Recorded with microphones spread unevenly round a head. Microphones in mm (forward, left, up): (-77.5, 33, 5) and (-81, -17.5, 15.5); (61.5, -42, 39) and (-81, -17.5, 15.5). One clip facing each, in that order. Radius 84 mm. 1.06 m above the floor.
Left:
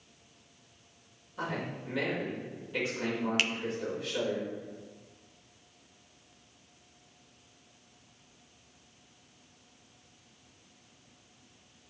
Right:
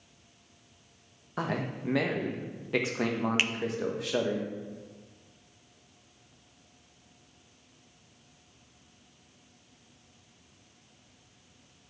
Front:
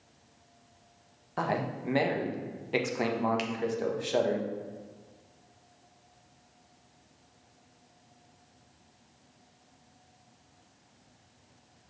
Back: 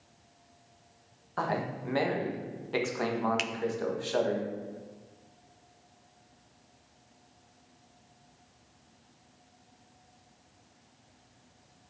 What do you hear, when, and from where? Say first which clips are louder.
1.4 s a man speaking: right 3 dB, front 1 dB; 85° right, 1.3 m
3.4 s a finger snap: even, front 2 dB; 165° right, 0.6 m